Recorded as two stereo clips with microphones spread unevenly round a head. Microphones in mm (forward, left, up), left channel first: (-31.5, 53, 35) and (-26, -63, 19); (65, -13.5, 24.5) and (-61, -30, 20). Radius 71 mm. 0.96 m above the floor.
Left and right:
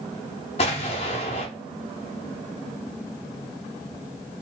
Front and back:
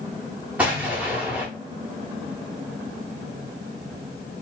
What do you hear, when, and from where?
0.6 s an explosion: 105° left, 0.7 m